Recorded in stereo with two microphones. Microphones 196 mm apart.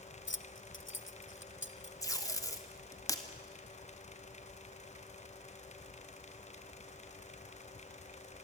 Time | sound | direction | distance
0.3 | keys jangling | 70° left (ahead or behind) | 0.7 m
2.0 | tape being pulled | 15° left (ahead or behind) | 2.0 m